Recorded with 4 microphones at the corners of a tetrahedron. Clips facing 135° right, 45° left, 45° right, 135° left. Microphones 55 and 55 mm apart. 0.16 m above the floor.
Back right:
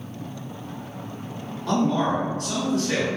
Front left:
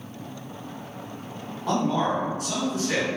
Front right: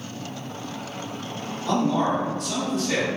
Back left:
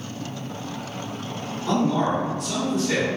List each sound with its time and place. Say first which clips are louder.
1.7 s a man speaking: back right 2 dB, even; 70° left, 1.4 m